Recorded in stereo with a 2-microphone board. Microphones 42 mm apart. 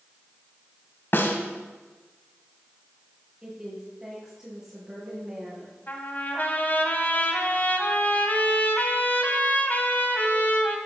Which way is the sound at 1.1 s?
55° left (ahead or behind).